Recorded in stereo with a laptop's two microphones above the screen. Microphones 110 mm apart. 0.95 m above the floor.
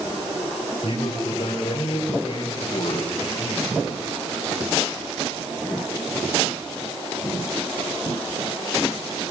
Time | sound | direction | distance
0.8 | a man speaking | 70° left (ahead or behind) | 4.5 m